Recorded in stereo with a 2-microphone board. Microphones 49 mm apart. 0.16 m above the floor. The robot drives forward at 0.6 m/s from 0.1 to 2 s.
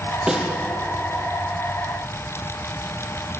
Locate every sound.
0.3 s a snare drum: 10° right (ahead or behind), 5 m